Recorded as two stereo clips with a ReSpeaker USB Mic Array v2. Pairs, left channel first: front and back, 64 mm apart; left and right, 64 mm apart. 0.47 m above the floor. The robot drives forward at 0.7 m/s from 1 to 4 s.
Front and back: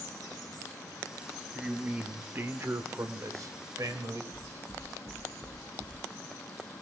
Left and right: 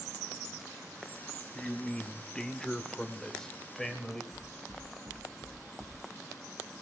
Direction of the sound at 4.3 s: 135° right.